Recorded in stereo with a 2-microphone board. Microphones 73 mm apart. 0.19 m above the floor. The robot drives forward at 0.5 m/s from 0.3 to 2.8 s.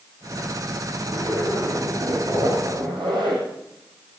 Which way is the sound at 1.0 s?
75° right (ahead or behind).